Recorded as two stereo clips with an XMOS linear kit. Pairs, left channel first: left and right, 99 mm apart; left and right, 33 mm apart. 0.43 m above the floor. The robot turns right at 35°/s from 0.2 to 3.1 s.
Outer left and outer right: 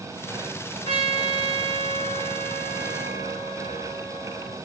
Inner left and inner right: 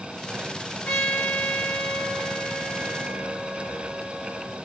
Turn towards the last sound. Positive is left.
turn(degrees=-170)